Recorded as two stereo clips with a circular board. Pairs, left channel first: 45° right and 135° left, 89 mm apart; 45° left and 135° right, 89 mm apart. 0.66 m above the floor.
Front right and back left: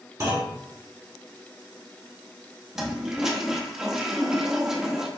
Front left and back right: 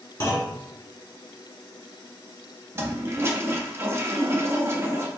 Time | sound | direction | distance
0.2 | a clunk | 95° left | 1.2 m
2.8 | a toilet flushing | 145° right | 0.5 m